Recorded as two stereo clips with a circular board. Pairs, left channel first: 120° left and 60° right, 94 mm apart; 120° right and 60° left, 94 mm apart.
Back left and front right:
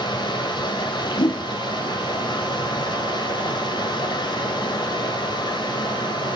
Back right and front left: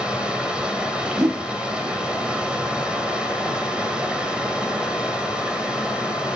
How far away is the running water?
About 1.8 m.